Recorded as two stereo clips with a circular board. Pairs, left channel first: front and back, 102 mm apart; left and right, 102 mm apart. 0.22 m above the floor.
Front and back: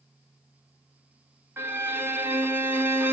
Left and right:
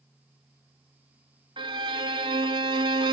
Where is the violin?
115° right, 0.7 m.